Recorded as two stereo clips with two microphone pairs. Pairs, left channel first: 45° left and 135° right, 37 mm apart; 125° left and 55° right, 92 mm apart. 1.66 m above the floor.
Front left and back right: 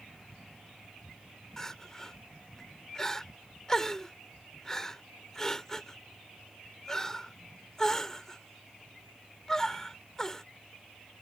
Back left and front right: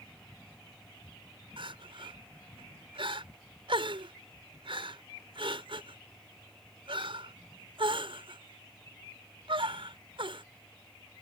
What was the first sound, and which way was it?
Crying, 30° right.